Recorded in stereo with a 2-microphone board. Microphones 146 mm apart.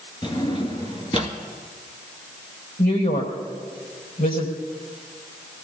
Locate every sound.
0.2 s a drawer: 30° left (ahead or behind), 1.7 m
2.8 s a woman speaking: 75° left (ahead or behind), 4.5 m